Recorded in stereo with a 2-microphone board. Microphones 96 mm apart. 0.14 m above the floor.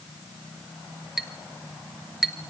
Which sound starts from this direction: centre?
A clink, at 1.2 s.